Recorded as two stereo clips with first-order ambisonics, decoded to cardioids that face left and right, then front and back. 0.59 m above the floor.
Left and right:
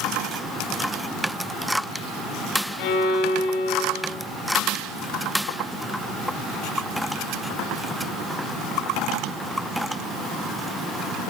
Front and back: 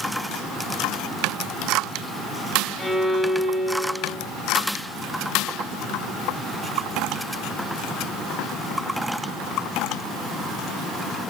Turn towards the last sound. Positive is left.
turn(degrees=90)